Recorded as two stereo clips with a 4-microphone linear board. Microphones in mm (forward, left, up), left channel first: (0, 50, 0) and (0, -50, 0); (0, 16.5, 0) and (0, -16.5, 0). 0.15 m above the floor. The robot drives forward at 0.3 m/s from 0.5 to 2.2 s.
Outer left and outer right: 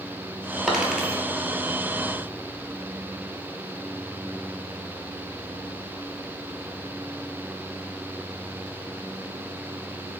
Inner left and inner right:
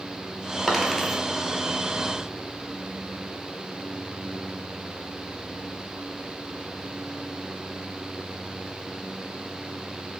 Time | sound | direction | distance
0.7 | a dropped coin | 5° right (ahead or behind) | 0.7 m